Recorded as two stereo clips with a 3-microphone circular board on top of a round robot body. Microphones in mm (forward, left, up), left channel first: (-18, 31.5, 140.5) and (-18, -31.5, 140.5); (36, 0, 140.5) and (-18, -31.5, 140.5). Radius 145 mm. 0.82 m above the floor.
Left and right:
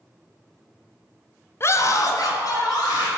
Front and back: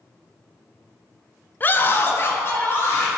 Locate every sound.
1.6 s a scream: 70° left, 0.6 m; by 3.1 s 80° left, 2.5 m